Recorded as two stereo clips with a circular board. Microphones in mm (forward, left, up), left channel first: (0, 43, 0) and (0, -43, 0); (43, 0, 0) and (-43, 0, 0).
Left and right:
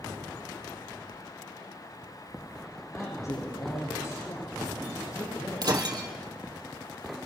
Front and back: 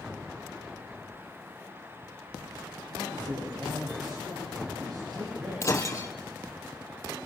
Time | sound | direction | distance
2.9 | a man speaking | 140° left | 9.5 m
5.6 | breaking glass | 50° right | 3 m